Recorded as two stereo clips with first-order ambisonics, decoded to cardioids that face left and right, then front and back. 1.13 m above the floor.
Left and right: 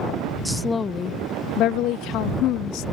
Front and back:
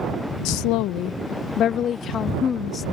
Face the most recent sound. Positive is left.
turn(degrees=70)